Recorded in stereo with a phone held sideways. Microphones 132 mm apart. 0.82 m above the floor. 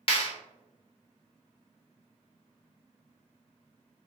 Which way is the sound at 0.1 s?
40° left (ahead or behind).